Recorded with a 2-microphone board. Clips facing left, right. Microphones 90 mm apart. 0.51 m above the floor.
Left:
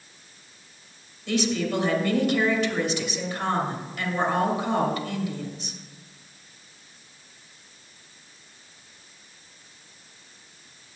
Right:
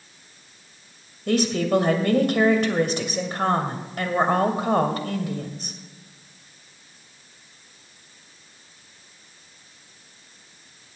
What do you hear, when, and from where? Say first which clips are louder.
1.3 s a woman speaking: right 4 dB; 50° right (ahead or behind), 2 m